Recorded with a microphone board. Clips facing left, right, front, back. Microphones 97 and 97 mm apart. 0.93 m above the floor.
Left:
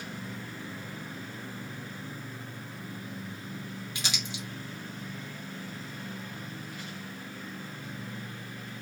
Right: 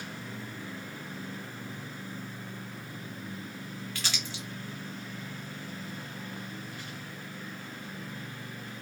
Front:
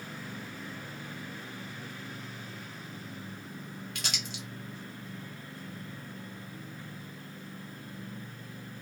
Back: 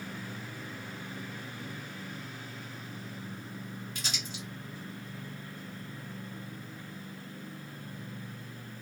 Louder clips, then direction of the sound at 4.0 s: Left 2 dB, even; 20° left.